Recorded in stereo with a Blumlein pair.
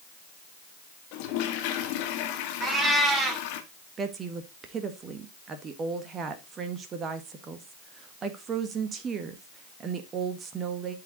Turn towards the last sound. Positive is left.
turn(degrees=-25)